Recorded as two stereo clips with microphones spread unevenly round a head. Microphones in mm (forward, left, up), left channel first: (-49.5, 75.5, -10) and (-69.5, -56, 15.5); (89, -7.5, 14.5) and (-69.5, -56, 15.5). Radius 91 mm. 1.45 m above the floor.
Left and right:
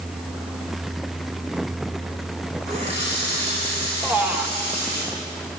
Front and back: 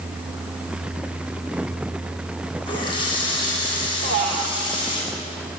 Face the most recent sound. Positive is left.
turn(degrees=-175)